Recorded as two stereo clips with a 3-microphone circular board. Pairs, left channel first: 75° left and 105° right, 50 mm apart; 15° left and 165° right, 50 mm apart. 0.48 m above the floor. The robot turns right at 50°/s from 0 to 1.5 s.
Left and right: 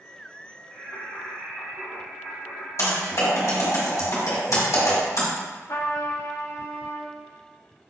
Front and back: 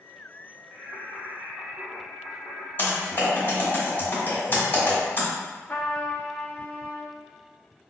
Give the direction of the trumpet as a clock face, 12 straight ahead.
10 o'clock.